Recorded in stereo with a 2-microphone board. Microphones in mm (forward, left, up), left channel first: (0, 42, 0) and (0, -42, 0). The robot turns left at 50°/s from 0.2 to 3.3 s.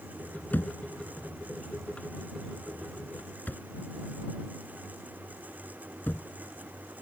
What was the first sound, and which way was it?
A thud, 20° left (ahead or behind).